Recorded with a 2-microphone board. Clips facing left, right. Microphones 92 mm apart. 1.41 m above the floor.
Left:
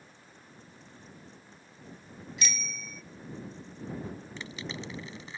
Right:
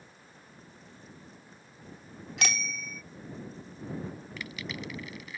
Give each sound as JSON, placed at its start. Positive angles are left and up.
{"t": 2.4, "sound": "a bicycle bell", "side_deg": -70}
{"t": 4.4, "sound": "crushing", "side_deg": 25}